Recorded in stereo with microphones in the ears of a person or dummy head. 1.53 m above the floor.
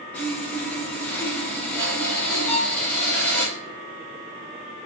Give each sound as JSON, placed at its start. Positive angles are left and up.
{"t": 0.1, "sound": "sawing", "side_deg": 15, "distance_m": 1.0}
{"t": 2.5, "sound": "a violin", "side_deg": 40, "distance_m": 1.1}